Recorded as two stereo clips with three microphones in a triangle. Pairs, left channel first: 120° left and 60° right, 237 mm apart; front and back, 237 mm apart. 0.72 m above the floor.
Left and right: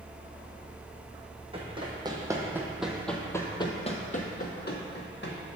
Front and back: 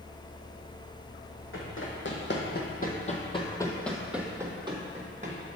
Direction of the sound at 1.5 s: 5° left.